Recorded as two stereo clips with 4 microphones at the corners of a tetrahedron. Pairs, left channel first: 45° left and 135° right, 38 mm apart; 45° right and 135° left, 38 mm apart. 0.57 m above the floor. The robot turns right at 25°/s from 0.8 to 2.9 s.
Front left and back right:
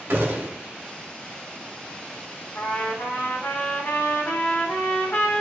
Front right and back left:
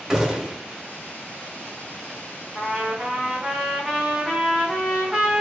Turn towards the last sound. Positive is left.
turn(degrees=60)